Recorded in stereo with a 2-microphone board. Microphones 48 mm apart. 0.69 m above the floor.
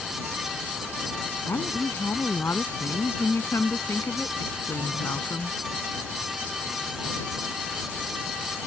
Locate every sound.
1.5 s a woman speaking: 80° left